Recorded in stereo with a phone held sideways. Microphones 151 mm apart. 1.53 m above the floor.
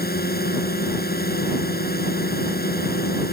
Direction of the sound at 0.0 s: 85° left.